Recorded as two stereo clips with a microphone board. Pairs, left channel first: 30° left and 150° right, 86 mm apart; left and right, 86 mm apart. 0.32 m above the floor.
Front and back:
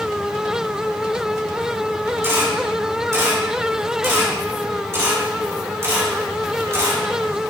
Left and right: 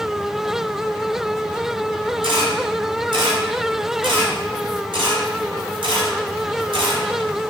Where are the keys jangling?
I don't hear keys jangling.